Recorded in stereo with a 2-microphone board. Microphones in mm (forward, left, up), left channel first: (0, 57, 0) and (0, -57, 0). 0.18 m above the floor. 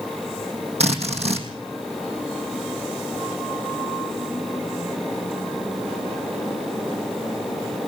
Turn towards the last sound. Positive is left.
turn(degrees=-65)  # may be behind; listen again after turning